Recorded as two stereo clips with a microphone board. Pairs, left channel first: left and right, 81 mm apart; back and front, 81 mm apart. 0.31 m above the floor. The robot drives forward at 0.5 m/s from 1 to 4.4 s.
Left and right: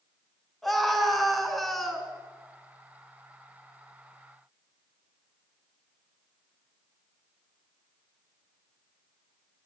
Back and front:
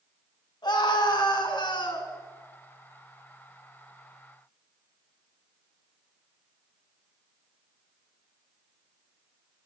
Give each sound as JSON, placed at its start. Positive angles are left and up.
{"t": 0.6, "sound": "a scream", "azimuth_deg": 180, "distance_m": 2.5}